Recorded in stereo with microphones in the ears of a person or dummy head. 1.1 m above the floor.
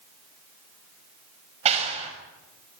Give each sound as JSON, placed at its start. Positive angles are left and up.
{"t": 1.6, "sound": "a clap", "side_deg": -35, "distance_m": 6.5}